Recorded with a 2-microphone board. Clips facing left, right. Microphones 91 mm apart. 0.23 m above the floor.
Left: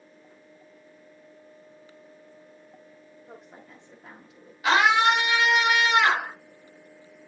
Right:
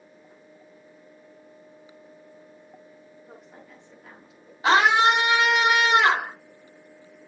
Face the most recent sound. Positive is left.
turn(degrees=-30)  # may be behind; listen again after turning